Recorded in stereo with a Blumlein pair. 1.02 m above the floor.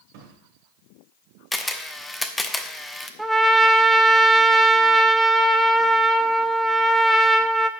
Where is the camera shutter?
5° left, 0.8 m.